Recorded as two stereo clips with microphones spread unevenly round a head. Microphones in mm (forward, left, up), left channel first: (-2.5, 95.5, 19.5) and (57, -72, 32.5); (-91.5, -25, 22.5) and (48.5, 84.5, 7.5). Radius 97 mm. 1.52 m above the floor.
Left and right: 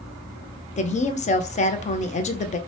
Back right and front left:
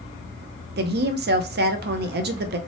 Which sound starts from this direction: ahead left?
A woman speaking, at 0.8 s.